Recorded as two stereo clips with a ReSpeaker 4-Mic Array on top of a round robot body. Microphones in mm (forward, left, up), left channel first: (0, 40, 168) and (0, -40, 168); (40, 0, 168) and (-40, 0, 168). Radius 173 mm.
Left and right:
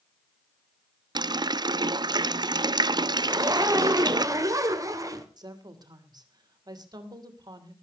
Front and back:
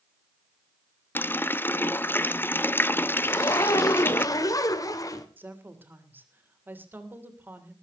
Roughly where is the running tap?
Ahead right.